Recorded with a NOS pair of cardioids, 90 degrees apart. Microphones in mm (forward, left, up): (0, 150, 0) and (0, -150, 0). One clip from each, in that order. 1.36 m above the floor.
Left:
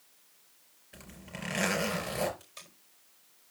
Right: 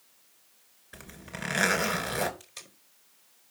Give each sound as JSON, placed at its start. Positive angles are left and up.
{"t": 0.9, "sound": "a zipper", "azimuth_deg": -35, "distance_m": 3.0}
{"t": 2.4, "sound": "tape being pulled", "azimuth_deg": -60, "distance_m": 3.5}